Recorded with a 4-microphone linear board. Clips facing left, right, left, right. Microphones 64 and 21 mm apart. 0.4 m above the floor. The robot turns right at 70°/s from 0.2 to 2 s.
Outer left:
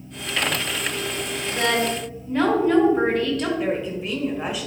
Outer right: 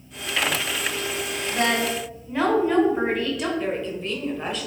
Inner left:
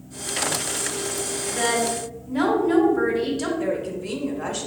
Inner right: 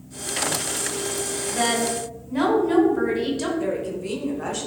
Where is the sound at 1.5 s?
40° right, 2 m; by 3.5 s 5° right, 2 m.